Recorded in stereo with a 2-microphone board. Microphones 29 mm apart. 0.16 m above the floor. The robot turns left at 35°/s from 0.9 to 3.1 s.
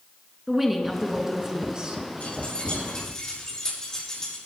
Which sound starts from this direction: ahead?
A woman speaking, at 0.5 s.